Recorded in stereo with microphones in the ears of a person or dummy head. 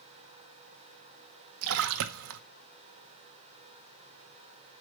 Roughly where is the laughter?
No laughter in this recording.